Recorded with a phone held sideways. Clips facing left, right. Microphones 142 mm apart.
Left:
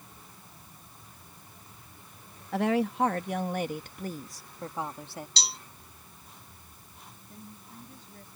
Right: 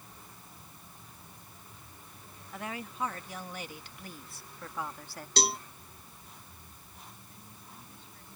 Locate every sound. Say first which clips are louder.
2.5 s a woman speaking: left 14 dB; 80° left; by 5.3 s 20° left (ahead or behind)
5.4 s a cowbell: right 9 dB; 55° right (ahead or behind)
7.3 s a woman speaking: left 5 dB; 40° left (ahead or behind)